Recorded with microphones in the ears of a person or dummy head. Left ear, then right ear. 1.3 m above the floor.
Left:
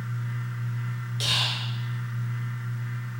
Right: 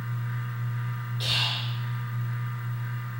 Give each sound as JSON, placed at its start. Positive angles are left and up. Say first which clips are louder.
{"t": 0.0, "sound": "a fan", "louder": "right 1 dB", "side_deg": -20, "distance_m": 0.8}
{"t": 1.2, "sound": "whispering", "louder": "left 1 dB", "side_deg": 35, "distance_m": 0.7}